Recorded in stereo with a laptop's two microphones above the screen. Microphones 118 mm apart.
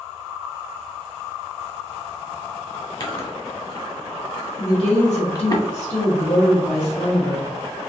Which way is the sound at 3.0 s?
35° left (ahead or behind).